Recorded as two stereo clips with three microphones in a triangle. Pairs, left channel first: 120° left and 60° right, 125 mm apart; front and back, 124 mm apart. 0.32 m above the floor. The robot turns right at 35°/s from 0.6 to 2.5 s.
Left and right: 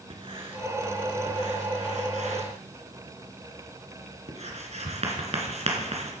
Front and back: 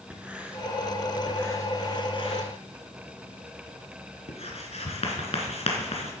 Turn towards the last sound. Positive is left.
turn(degrees=-35)